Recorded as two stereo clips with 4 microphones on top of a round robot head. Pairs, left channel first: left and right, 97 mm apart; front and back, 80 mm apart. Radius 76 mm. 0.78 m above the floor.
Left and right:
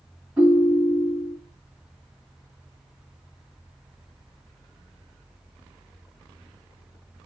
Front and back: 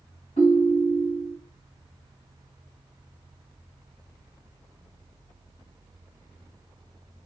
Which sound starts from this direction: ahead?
A ringtone, at 0.4 s.